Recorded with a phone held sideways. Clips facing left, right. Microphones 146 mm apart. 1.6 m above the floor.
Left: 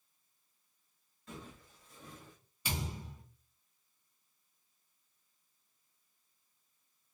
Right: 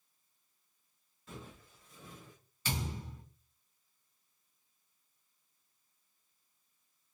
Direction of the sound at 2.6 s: 15° left (ahead or behind).